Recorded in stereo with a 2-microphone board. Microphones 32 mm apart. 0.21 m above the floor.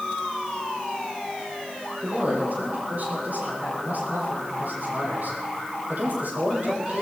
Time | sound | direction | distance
2.0 | a man speaking | 60° right (ahead or behind) | 9 m